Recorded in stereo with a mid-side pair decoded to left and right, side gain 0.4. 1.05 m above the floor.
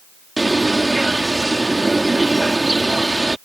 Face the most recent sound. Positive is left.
turn(degrees=-20)